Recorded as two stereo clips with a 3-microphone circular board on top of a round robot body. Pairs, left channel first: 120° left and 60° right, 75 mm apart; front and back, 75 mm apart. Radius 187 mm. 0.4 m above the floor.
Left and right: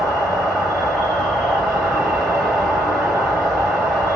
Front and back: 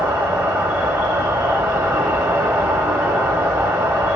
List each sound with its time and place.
0.0 s an insect: 155° right, 2 m